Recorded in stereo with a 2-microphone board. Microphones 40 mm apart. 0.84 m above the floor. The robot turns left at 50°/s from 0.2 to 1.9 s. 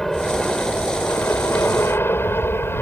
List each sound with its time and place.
0.0 s an aircraft: 165° left; by 2.8 s 80° left